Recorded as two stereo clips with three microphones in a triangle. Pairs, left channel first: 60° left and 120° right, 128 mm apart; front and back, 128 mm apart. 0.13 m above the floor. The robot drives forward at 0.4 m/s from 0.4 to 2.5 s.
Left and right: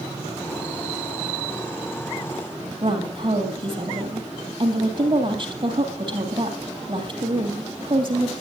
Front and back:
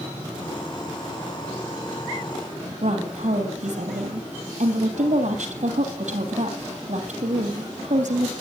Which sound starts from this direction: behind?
A woman speaking, at 2.8 s.